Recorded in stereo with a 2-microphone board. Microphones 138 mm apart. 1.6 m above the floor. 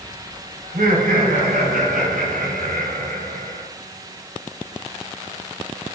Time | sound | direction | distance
0.6 | laughter | 80° right | 7 m